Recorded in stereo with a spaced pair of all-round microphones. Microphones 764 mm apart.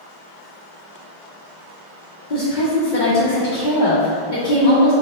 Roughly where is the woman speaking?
Left.